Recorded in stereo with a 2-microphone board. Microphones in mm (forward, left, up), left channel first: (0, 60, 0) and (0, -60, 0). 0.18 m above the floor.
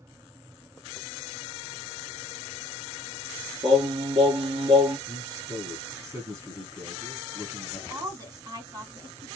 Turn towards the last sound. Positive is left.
turn(degrees=-35)  # may be behind; listen again after turning